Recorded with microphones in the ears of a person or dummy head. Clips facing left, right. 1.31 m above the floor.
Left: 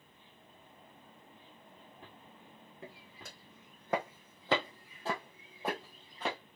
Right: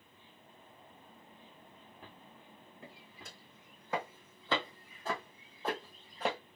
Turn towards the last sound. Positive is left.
turn(degrees=-10)  # may be behind; listen again after turning